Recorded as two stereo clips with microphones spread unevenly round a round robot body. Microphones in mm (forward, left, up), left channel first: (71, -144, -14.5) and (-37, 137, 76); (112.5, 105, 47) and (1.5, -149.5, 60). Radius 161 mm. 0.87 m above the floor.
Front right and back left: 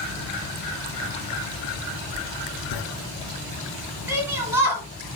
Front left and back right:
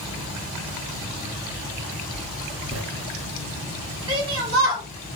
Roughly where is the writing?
Right.